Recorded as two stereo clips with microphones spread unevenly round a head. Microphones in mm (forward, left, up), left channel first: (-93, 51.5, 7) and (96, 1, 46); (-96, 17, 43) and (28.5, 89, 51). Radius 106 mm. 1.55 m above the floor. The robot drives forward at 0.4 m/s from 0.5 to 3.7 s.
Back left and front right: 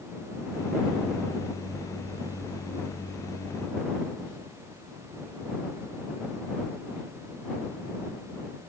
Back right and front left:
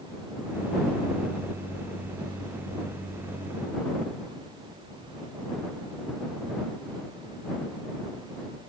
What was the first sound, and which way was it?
Only background noise.